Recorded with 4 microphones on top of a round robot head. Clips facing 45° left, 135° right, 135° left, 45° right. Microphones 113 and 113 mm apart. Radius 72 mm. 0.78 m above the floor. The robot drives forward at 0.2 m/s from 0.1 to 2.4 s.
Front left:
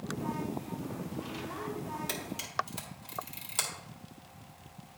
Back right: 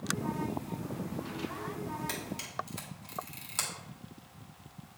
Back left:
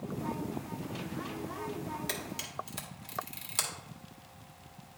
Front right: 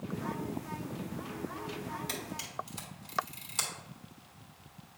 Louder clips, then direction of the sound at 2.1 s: Even, back left 1 dB; 120° left.